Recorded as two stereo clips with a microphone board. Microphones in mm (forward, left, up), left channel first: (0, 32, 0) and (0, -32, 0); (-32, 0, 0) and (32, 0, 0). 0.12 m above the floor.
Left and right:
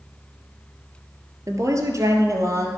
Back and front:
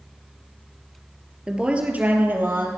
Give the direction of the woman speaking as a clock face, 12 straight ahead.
3 o'clock.